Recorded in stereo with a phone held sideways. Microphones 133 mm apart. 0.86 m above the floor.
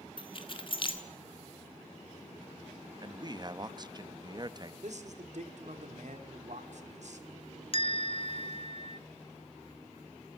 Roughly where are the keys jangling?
Left.